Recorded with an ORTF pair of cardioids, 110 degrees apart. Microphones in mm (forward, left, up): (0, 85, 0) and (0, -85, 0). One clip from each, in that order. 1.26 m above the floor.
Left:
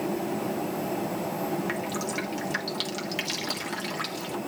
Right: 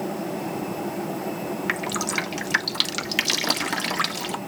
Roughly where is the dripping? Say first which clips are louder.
Right 5 dB; ahead right.